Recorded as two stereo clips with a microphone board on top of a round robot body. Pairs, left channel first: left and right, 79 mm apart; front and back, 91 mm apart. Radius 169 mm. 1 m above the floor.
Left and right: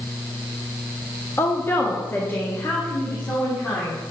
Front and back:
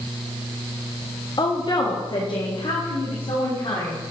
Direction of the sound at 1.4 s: 30° left.